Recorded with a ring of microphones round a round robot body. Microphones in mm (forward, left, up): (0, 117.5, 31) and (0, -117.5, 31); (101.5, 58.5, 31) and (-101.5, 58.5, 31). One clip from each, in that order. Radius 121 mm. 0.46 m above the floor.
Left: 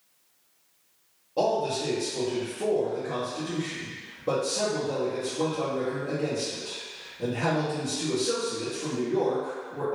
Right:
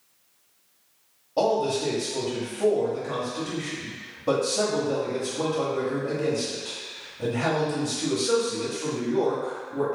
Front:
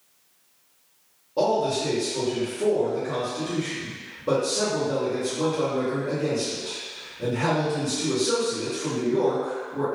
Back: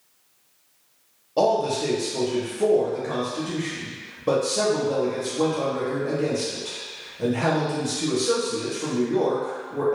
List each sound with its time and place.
1.4 s a man speaking: 175° right, 0.9 m